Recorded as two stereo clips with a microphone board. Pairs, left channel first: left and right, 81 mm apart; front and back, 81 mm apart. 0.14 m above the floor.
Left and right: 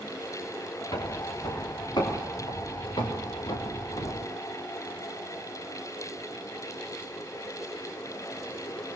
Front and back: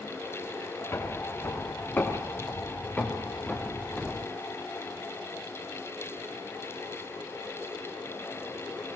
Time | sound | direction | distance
0.9 | footsteps | 55° left | 5 m